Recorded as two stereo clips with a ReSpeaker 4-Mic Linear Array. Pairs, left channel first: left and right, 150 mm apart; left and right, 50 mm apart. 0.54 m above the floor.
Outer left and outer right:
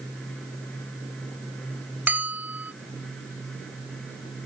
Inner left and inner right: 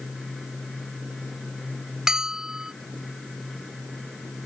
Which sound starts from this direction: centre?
A bell, at 2.1 s.